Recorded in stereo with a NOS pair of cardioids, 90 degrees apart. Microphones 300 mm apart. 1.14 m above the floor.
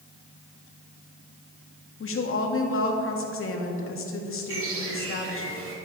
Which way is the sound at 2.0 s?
45° left.